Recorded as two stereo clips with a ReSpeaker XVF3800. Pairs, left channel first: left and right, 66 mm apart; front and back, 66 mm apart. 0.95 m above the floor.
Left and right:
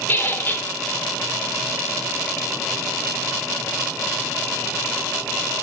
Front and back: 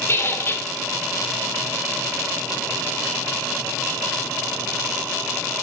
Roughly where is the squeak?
Ahead left.